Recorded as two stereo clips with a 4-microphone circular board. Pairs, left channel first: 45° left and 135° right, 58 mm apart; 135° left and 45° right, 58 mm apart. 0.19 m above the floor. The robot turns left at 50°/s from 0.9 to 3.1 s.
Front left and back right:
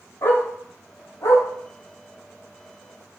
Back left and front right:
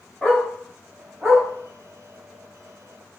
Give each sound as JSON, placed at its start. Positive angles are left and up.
{"t": 0.2, "sound": "a dog barking", "azimuth_deg": 55, "distance_m": 5.0}